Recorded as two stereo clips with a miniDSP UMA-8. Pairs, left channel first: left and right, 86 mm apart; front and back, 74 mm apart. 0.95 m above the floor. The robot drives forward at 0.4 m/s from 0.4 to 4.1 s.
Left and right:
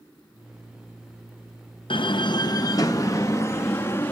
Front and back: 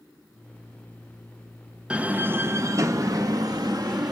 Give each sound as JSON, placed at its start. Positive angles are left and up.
{"t": 1.9, "sound": "a door slam", "azimuth_deg": 105, "distance_m": 0.5}